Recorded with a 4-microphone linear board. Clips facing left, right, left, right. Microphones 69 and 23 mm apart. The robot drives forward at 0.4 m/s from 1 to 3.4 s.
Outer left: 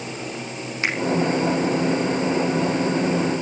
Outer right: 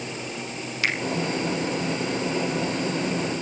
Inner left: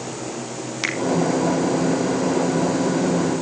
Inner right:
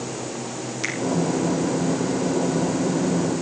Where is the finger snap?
30° left (ahead or behind), 3 m.